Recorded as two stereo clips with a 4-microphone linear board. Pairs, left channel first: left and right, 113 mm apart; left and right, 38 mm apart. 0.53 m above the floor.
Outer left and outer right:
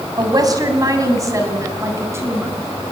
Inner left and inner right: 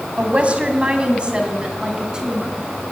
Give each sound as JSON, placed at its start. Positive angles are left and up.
{"t": 0.2, "sound": "a woman speaking", "side_deg": -35, "distance_m": 3.0}